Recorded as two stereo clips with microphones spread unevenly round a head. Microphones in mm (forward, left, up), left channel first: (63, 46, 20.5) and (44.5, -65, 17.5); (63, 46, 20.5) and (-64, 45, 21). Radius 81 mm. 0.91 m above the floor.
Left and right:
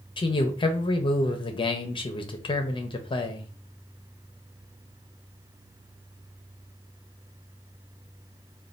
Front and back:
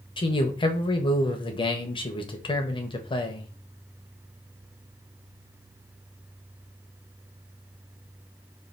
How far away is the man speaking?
About 0.7 m.